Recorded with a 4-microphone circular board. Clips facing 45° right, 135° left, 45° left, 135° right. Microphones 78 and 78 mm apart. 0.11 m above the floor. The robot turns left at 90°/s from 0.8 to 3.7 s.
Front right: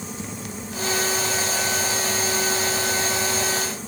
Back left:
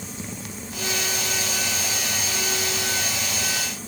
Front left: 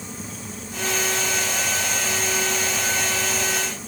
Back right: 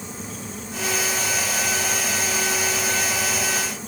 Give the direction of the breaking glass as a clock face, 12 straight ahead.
No breaking glass in this recording.